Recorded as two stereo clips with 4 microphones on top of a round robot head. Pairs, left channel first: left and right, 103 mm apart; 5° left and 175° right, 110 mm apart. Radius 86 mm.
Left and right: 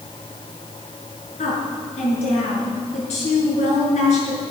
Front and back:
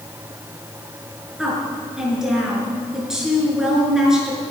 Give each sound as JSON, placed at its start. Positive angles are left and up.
{"t": 1.4, "sound": "a woman speaking", "azimuth_deg": 100, "distance_m": 6.0}